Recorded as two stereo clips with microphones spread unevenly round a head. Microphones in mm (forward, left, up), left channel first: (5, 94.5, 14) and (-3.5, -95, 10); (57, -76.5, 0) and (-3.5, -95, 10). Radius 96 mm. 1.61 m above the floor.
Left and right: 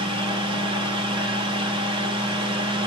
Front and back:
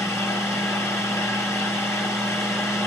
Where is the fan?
30° right, 1.9 m.